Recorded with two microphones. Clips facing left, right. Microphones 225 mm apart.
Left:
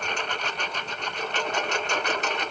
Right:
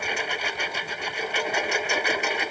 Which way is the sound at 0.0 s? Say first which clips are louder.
Right 1 dB; 10° right (ahead or behind).